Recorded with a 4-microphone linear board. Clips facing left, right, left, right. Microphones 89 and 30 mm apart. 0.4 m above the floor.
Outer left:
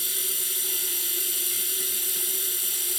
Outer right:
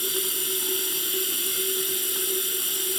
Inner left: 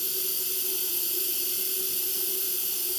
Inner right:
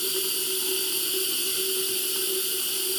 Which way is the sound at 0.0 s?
55° right (ahead or behind).